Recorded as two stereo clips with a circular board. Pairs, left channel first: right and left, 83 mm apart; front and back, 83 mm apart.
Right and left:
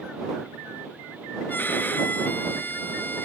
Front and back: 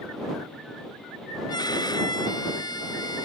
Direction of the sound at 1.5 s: 25° right.